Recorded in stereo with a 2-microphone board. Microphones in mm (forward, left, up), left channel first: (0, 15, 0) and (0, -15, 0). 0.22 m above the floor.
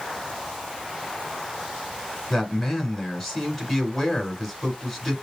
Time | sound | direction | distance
2.3 | a man speaking | 10° left (ahead or behind) | 2 m